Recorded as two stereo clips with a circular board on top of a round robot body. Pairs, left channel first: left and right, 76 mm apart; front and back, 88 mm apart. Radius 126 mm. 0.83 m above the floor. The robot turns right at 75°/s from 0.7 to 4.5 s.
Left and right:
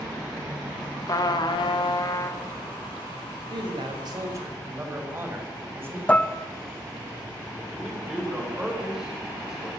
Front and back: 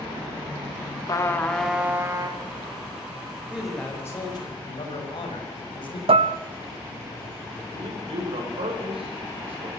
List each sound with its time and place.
1.1 s a trumpet: 45° left, 2.5 m; by 2.4 s 150° left, 2.5 m
3.5 s a man speaking: 105° right, 5.5 m; by 6.0 s 30° right, 5.5 m
6.1 s dishes clattering: 165° left, 0.7 m
7.7 s a man speaking: 170° right, 5.5 m